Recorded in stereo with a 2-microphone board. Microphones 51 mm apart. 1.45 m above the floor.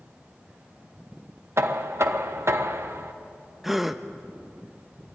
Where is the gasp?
5° right (ahead or behind), 0.7 m.